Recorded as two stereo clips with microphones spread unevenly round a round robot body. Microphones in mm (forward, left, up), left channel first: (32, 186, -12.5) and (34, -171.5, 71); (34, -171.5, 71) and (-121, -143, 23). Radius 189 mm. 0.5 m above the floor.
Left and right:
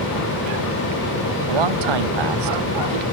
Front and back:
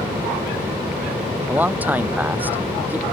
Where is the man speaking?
110° right.